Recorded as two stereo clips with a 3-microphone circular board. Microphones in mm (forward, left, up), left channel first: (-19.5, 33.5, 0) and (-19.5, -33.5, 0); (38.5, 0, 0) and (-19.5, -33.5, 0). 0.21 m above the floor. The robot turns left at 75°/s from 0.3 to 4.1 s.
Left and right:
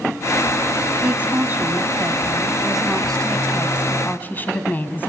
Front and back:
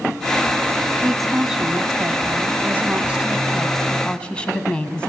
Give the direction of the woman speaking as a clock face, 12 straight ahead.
1 o'clock.